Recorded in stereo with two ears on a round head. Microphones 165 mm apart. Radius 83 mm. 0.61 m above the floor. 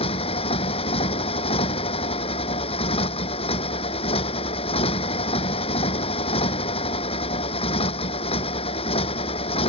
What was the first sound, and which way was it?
A motorcycle, 30° left (ahead or behind).